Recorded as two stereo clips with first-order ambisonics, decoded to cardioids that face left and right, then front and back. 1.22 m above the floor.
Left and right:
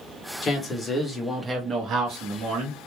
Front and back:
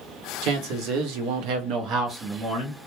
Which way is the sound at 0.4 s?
150° left.